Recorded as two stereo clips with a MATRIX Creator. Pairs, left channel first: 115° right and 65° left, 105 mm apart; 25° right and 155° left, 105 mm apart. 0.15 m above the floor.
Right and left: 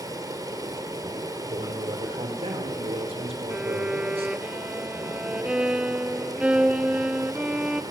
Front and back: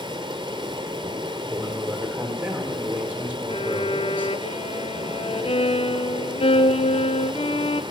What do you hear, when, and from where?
0.0 s running water: 120° left, 1.7 m
1.5 s a man speaking: 80° left, 3 m
3.5 s a violin: 10° right, 0.5 m